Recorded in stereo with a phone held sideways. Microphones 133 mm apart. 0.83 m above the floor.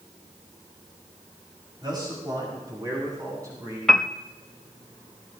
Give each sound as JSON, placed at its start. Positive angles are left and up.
{"t": 1.8, "sound": "a man speaking", "side_deg": -35, "distance_m": 5.0}
{"t": 3.9, "sound": "a piano", "side_deg": 0, "distance_m": 0.5}